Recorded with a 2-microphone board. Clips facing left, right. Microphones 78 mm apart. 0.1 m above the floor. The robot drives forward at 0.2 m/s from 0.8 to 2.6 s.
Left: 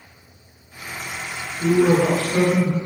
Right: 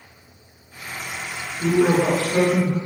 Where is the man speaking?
20° right (ahead or behind), 1.2 m.